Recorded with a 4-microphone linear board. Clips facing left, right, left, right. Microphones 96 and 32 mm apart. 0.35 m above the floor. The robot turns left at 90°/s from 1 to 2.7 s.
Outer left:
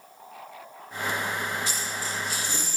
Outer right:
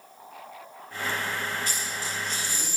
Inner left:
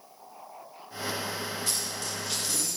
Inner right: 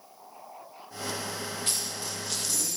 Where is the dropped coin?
125° right, 10 m; by 2.8 s 140° left, 10 m.